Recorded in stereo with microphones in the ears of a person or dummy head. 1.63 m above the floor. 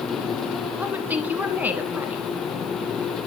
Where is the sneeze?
I don't hear a sneeze.